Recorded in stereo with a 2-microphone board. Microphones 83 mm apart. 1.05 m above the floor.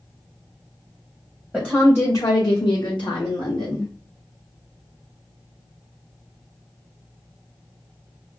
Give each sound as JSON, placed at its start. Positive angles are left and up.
{"t": 1.5, "sound": "a woman speaking", "side_deg": 5, "distance_m": 0.6}